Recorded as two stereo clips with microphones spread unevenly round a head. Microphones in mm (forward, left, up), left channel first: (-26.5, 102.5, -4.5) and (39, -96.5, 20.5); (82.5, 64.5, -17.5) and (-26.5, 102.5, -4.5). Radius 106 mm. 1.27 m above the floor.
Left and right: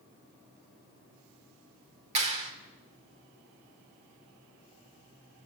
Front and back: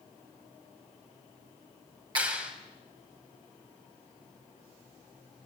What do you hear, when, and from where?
2.1 s a clap: 135° right, 3 m